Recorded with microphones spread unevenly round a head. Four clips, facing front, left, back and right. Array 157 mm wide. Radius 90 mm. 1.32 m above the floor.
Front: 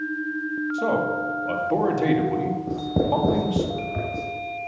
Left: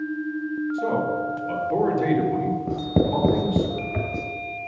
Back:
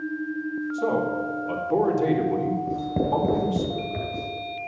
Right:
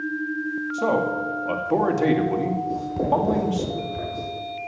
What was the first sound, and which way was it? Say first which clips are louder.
A man speaking: right 3 dB, front 1 dB; 55° right.